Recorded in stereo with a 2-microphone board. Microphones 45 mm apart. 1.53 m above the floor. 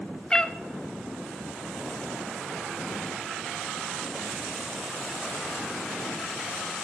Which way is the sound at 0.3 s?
20° left (ahead or behind).